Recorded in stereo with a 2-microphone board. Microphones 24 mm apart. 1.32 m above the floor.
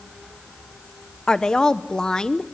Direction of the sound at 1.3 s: 35° left (ahead or behind).